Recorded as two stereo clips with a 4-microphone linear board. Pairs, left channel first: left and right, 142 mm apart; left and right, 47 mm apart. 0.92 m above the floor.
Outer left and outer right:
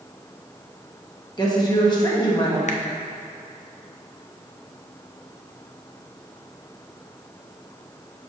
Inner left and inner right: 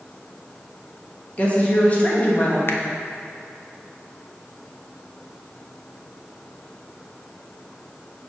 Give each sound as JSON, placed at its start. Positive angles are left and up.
{"t": 1.4, "sound": "a woman speaking", "side_deg": 30, "distance_m": 1.3}
{"t": 2.7, "sound": "a finger snap", "side_deg": 55, "distance_m": 0.6}